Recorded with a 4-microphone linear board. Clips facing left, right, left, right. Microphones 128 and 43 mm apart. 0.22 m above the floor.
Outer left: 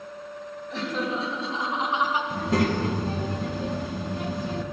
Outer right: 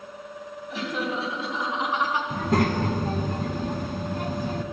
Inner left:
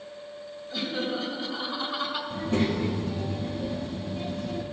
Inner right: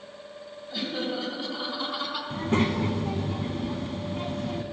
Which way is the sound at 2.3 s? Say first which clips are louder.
Outer right 1 dB, inner right 2 dB; 50° right (ahead or behind).